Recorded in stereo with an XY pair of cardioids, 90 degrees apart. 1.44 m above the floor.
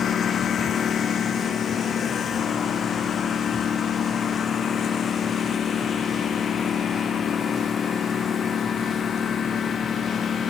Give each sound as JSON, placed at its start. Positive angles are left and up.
{"t": 0.0, "sound": "a lawn mower", "azimuth_deg": 60}